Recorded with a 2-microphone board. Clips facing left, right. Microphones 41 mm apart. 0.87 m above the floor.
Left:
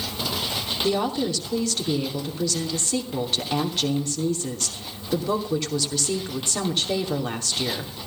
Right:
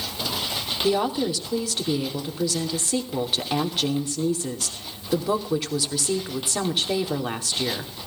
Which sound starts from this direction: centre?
A woman speaking, at 0.8 s.